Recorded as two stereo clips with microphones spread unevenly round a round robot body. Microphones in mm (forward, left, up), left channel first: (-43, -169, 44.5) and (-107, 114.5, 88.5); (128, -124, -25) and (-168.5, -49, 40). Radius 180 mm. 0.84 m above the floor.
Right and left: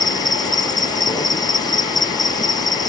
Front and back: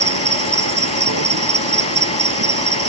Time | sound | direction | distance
0.0 | an insect | 155° right | ?